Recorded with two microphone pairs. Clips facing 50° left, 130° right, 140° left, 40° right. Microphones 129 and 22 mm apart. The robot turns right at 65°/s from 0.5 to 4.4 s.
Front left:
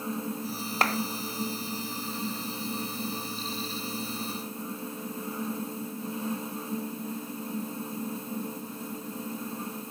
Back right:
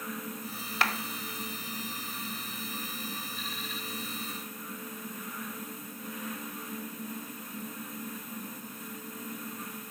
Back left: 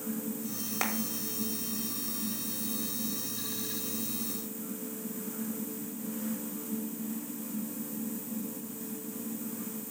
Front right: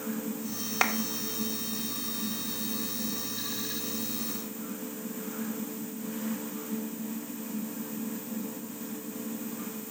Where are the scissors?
No scissors in this recording.